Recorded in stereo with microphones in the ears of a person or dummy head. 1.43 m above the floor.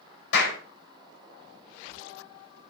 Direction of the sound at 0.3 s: 85° left.